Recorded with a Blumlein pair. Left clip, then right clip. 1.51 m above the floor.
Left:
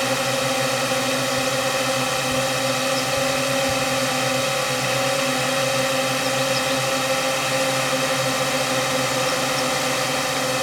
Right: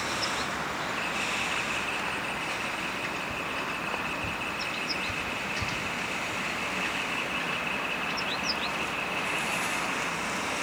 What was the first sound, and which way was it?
A drone, 45° left.